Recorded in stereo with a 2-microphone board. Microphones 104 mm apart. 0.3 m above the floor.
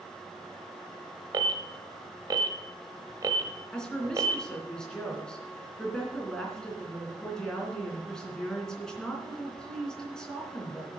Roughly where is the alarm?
Right.